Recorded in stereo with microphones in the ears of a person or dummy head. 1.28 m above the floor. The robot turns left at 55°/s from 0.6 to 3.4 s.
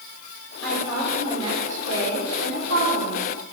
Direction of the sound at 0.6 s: 20° left.